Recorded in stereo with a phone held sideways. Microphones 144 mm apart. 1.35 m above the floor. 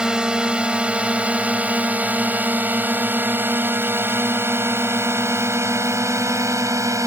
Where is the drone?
5° right (ahead or behind); by 7.1 s 20° right (ahead or behind).